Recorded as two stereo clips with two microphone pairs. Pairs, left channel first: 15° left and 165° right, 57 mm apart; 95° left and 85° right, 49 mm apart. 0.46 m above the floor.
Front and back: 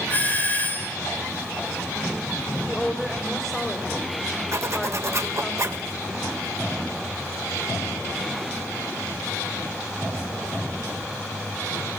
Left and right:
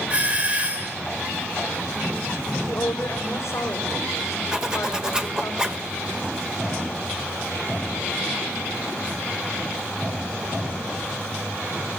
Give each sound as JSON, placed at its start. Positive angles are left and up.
{"t": 0.1, "sound": "a doorbell", "azimuth_deg": -30, "distance_m": 2.5}
{"t": 2.7, "sound": "a woman speaking", "azimuth_deg": 90, "distance_m": 3.5}
{"t": 4.5, "sound": "a zipper", "azimuth_deg": -160, "distance_m": 1.4}